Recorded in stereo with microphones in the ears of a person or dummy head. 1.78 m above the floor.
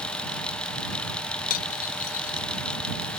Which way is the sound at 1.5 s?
50° left (ahead or behind).